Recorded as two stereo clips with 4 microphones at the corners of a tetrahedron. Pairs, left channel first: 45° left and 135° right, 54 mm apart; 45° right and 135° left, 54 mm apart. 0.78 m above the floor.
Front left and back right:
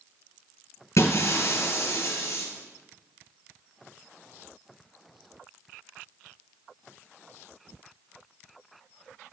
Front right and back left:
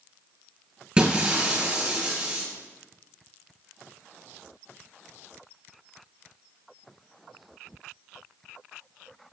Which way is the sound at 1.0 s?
65° left.